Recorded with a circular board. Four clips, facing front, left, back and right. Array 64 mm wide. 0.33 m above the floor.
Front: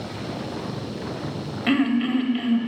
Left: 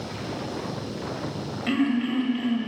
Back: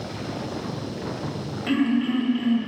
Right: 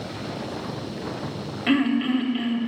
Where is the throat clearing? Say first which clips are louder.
Right 3 dB, front 1 dB; 30° right, 1.5 m.